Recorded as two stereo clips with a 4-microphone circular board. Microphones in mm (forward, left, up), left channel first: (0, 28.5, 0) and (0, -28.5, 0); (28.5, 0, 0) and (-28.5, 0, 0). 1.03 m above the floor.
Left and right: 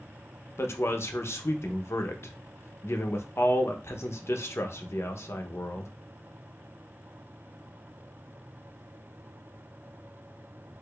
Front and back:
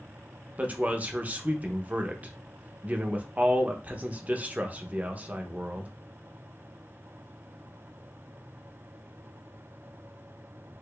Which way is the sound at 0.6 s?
120° left.